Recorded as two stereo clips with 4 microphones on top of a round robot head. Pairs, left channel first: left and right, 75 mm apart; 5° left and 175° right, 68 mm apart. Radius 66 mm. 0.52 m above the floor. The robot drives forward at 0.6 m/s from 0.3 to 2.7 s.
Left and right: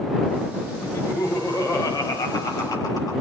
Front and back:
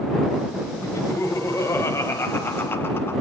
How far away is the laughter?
About 4.5 m.